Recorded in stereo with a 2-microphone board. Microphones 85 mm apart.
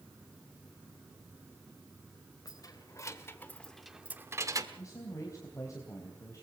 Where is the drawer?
I don't hear a drawer.